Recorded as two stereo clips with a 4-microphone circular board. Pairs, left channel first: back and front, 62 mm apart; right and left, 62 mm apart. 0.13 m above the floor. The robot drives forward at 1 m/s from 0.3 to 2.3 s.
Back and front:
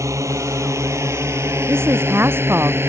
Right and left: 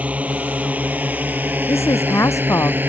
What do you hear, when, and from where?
0.0 s a drone: 25° left; by 2.9 s 35° left
1.7 s a woman speaking: 50° right